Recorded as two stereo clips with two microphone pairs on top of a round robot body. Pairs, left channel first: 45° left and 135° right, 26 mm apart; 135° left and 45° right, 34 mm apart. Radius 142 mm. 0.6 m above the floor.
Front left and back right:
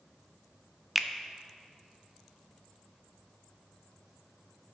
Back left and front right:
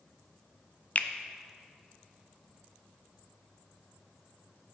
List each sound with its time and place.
0.9 s a finger snap: 140° left, 0.7 m